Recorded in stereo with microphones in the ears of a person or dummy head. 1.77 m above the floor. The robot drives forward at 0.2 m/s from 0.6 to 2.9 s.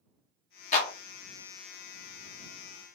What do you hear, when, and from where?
0.7 s a clap: 45° left (ahead or behind), 1.2 m